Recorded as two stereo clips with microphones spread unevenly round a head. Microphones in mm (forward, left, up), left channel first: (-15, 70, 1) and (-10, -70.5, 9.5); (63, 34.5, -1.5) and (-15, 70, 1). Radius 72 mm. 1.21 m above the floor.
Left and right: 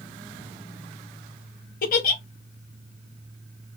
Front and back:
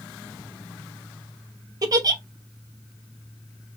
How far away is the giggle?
About 0.9 m.